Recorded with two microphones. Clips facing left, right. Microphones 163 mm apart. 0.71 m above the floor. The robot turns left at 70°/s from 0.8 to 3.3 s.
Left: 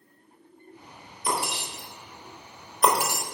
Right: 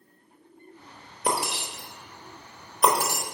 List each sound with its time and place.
1.2 s breaking glass: 65° right (ahead or behind), 1.2 m; by 3.2 s 25° left (ahead or behind), 1.2 m